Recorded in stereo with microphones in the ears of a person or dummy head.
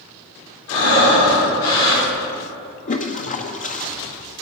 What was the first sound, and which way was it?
Breathing, 75° left (ahead or behind).